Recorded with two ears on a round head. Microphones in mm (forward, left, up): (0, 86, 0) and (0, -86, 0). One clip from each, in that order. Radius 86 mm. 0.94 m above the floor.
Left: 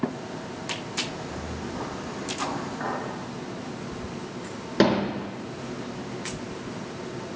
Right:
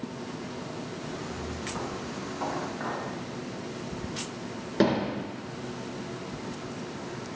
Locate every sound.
1.0 s footsteps: 60° right (ahead or behind), 5 m
2.8 s a clink: 5° left (ahead or behind), 3.5 m
4.8 s hammering: 25° left (ahead or behind), 3 m